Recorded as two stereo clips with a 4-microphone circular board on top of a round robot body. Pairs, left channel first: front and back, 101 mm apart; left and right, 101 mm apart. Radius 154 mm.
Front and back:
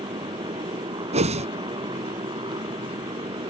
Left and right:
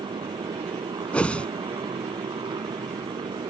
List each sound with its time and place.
0.0 s a motorcycle: 135° right
1.1 s a whoosh: 170° left